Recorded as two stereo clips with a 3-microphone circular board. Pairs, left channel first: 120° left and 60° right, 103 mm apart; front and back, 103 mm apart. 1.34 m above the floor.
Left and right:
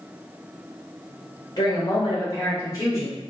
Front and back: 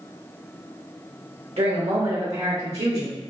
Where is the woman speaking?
165° left, 1.2 m; by 3.2 s straight behind, 2 m.